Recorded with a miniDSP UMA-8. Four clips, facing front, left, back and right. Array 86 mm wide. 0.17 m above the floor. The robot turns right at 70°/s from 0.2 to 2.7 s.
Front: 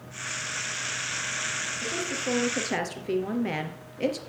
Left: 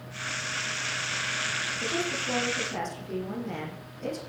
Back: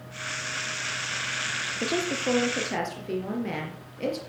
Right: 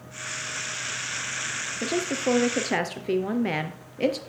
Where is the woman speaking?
140° right, 3 m; by 4.2 s 80° right, 3 m.